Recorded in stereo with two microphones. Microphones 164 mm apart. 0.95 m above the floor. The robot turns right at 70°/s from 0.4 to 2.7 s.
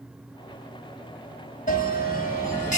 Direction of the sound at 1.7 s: 55° left.